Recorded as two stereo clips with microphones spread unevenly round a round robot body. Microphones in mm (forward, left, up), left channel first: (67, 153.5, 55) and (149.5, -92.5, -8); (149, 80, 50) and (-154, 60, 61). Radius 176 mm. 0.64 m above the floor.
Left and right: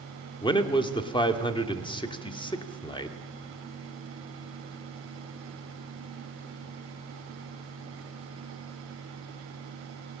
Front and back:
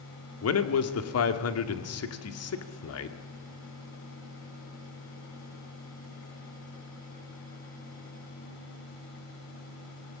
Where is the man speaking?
30° left, 1.9 m.